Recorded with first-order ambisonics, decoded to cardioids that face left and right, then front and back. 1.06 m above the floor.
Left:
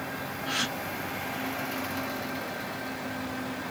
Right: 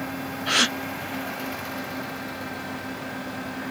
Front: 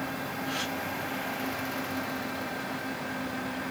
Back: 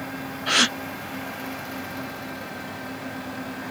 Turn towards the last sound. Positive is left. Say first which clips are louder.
# right 9 dB, back 15 dB
turn(degrees=-145)